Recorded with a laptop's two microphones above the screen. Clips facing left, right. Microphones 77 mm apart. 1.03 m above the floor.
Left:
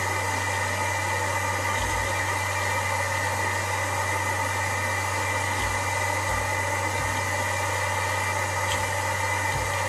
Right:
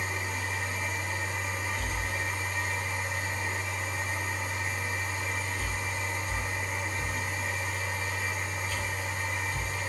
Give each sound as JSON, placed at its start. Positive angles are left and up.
{"t": 0.0, "sound": "a machine running", "side_deg": 75, "distance_m": 1.0}